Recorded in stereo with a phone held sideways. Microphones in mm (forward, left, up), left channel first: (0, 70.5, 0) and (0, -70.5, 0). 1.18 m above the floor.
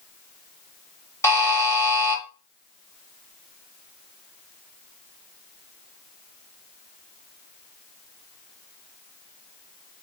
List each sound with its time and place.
1.2 s a buzzer: 20° left (ahead or behind), 0.8 m